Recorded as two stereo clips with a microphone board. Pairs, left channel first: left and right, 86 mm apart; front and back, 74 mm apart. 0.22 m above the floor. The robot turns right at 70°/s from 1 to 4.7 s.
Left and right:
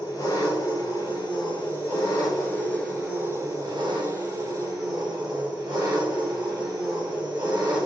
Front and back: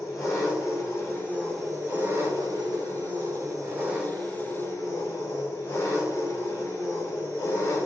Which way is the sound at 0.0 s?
45° left.